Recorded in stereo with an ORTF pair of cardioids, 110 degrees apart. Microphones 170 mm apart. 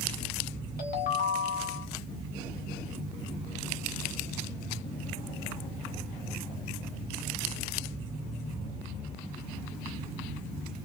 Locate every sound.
0.8 s a ringtone: 55° left, 1.8 m